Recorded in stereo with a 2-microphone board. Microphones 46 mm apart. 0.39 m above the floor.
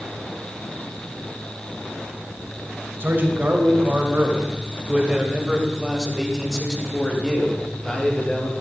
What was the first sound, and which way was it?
A man speaking, 45° right (ahead or behind).